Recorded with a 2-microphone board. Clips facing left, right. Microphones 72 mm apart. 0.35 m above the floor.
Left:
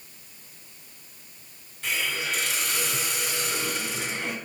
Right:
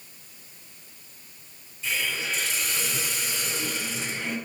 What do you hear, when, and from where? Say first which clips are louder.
1.8 s a hiss: even; 70° left (ahead or behind), 1.4 m